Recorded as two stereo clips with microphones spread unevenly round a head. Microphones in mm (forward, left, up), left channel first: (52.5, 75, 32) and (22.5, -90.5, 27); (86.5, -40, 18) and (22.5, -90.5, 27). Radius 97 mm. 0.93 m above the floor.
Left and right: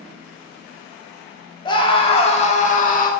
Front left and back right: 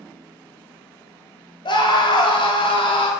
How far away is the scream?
About 2.0 m.